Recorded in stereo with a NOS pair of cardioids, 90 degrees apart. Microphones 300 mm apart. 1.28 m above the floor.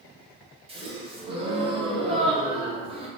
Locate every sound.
0.7 s a gasp: 20° right, 0.7 m